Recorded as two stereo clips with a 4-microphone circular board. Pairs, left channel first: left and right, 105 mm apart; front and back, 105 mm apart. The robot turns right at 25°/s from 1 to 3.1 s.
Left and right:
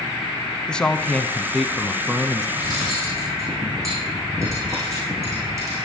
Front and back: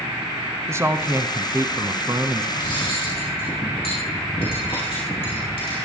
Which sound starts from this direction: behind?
A man speaking, at 0.7 s.